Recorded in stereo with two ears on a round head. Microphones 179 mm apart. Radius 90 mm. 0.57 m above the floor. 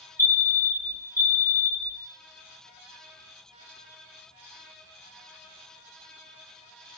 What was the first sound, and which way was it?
A fire alarm, 15° left (ahead or behind).